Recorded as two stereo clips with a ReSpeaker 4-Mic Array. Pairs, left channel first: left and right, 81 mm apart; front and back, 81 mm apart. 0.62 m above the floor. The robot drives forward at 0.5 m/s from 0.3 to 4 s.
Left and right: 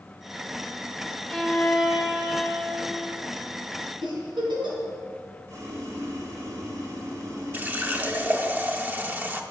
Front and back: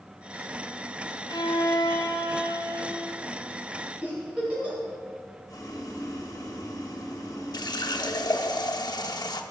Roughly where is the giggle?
Right.